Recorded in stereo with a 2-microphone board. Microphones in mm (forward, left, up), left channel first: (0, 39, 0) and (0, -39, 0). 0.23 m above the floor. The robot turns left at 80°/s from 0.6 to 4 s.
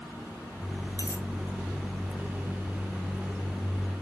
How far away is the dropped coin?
About 1.1 m.